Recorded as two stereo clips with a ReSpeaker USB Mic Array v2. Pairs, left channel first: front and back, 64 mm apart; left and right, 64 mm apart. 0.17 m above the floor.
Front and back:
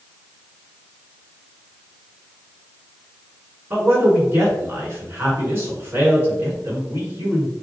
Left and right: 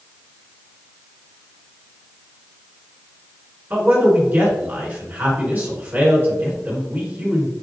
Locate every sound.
3.7 s a man speaking: 140° right, 1.8 m